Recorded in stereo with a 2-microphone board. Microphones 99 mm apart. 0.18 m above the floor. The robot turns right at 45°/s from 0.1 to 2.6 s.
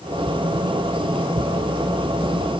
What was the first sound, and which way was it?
Only background noise.